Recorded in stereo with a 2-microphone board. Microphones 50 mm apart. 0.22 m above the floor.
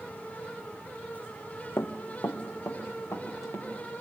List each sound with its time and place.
1.8 s running footsteps: 65° left (ahead or behind), 1.0 m; by 3.7 s 85° left, 3 m